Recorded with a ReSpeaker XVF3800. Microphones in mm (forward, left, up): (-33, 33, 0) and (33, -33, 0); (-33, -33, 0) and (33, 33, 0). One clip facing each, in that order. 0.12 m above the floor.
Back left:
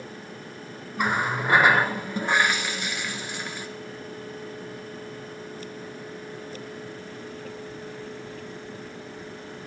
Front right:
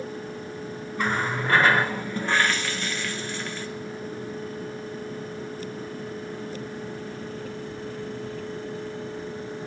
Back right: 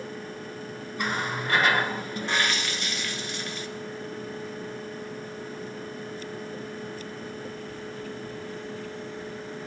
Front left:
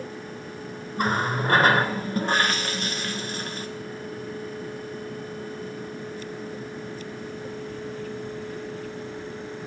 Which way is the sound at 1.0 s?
65° left.